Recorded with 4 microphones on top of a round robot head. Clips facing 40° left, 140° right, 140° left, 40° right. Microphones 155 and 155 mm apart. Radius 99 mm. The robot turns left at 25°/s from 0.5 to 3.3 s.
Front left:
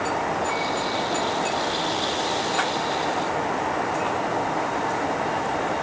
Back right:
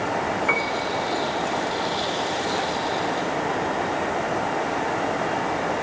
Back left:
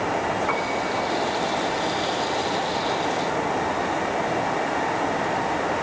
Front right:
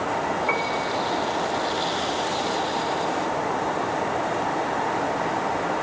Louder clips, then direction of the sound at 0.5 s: Back right 1 dB, even; 115° right.